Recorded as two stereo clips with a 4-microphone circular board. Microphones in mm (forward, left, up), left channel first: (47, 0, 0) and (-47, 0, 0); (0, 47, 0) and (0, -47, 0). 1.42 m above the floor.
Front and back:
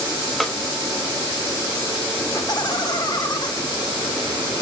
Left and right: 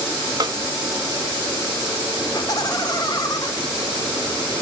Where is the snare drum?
85° right, 0.8 m.